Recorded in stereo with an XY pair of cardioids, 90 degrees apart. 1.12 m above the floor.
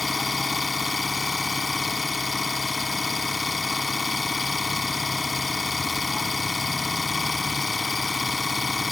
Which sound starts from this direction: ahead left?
An engine running, at 0.0 s.